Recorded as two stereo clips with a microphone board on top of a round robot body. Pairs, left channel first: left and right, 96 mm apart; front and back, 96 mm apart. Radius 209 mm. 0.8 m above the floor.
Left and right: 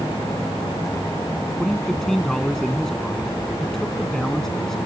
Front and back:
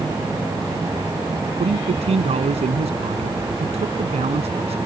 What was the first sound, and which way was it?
A man speaking, 175° left.